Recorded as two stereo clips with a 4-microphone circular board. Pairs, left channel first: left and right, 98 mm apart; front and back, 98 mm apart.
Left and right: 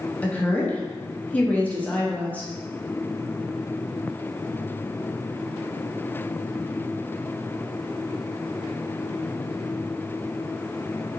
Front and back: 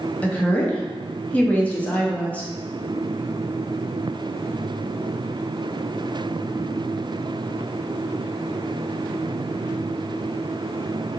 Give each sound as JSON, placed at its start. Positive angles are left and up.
{"t": 0.2, "sound": "a woman speaking", "azimuth_deg": 45, "distance_m": 0.5}